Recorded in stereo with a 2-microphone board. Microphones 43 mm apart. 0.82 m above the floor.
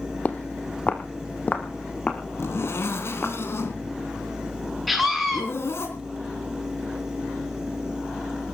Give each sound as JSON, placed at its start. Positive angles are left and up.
{"t": 0.2, "sound": "footsteps", "side_deg": 35, "distance_m": 1.3}
{"t": 2.4, "sound": "a zipper", "side_deg": 70, "distance_m": 3.0}
{"t": 4.9, "sound": "a scream", "side_deg": 0, "distance_m": 7.0}